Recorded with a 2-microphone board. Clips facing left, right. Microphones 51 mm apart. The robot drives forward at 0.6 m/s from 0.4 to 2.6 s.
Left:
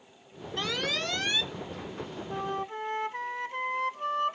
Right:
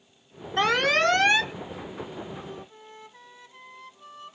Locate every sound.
0.6 s an alarm: 60° right (ahead or behind); by 1.5 s 65° right (ahead or behind)
2.3 s a flute: 70° left (ahead or behind); by 4.4 s 65° left (ahead or behind)